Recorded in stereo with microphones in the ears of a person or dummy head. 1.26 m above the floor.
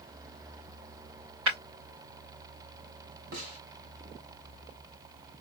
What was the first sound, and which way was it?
Breaking glass, 85° right.